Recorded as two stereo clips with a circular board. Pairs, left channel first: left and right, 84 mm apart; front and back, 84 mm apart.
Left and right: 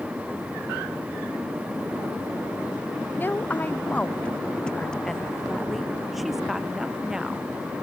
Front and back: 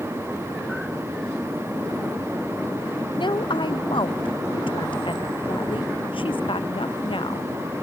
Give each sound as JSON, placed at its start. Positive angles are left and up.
{"t": 3.2, "sound": "a woman speaking", "azimuth_deg": 25}